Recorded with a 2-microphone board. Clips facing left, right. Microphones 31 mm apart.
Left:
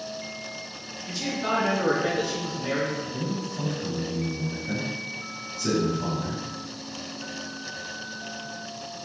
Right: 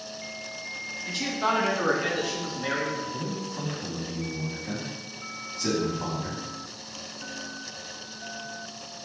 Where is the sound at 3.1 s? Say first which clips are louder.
Left 2 dB; 50° right (ahead or behind), 3 m.